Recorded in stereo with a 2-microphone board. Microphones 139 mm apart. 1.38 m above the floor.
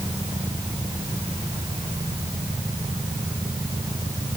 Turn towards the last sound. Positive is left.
No sound to turn to.